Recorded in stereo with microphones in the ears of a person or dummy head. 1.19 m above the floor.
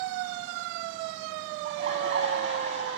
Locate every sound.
1.6 s laughter: 40° right (ahead or behind), 7 m